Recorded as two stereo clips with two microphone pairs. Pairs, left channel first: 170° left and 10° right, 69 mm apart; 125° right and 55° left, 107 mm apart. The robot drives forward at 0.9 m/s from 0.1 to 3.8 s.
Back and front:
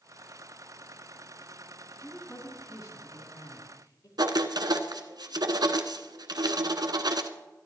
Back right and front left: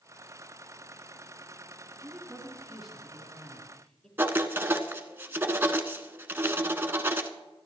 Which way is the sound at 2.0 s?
135° left.